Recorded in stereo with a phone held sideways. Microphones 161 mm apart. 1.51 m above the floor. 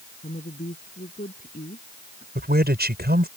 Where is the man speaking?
85° right.